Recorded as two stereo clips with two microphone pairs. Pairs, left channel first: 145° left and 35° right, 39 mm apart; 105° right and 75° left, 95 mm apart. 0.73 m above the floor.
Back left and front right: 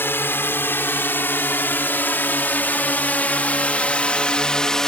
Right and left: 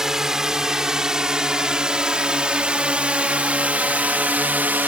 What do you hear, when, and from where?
0.0 s a drone: 155° left; by 4.9 s 100° left